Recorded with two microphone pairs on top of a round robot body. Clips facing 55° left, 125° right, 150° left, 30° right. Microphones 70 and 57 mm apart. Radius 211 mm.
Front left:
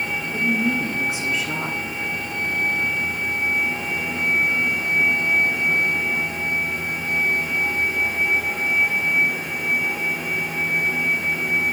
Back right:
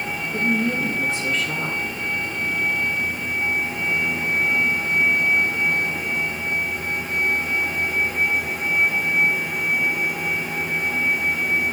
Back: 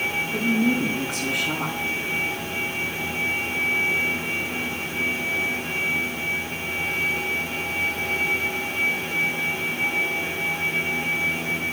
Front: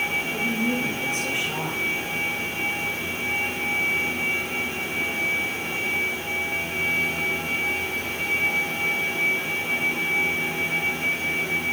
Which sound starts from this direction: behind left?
A woman speaking, at 0.3 s.